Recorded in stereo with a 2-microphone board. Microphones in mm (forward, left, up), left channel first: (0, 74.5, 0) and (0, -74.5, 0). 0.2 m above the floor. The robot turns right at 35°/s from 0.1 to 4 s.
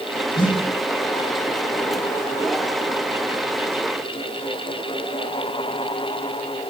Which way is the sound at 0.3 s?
75° left (ahead or behind).